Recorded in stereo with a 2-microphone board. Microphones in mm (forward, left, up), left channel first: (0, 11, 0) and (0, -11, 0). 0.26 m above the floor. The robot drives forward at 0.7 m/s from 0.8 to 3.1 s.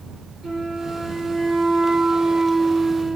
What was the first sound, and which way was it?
A flute, 30° right (ahead or behind).